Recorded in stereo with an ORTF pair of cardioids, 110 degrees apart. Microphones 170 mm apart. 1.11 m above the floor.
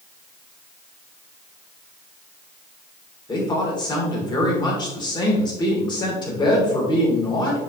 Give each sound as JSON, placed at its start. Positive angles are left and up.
{"t": 3.3, "sound": "a woman speaking", "azimuth_deg": 25, "distance_m": 3.5}